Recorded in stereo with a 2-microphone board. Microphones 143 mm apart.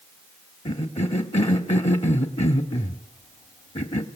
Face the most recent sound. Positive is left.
turn(degrees=55)  # may be behind; listen again after turning